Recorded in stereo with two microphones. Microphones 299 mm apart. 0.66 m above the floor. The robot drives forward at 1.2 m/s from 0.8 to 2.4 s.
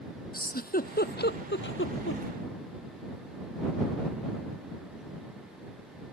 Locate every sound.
0.3 s a giggle: 30° left (ahead or behind); by 2.2 s 45° left (ahead or behind)